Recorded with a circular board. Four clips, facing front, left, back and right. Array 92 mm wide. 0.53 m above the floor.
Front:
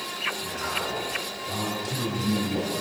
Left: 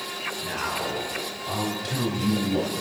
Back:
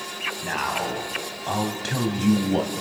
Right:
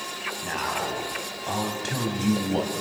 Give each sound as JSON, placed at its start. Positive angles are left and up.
{"t": 0.4, "sound": "a man speaking", "azimuth_deg": -160, "distance_m": 4.0}